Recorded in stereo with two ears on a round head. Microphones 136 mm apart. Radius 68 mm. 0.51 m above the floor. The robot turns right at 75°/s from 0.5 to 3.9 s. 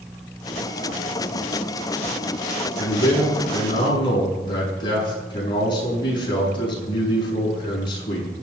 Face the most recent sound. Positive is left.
turn(degrees=150)